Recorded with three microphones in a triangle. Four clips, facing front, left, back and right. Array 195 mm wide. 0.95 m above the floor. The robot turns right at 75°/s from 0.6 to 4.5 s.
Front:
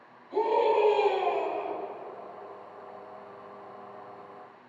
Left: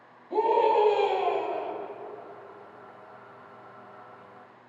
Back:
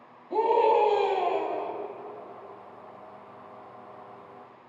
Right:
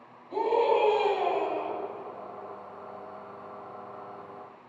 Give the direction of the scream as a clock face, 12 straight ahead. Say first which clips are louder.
Left 2 dB, back 3 dB; 7 o'clock.